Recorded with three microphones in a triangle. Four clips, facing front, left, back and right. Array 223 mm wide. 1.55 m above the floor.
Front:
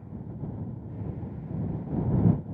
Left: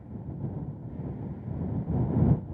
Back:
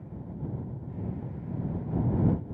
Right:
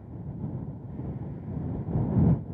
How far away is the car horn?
I don't hear a car horn.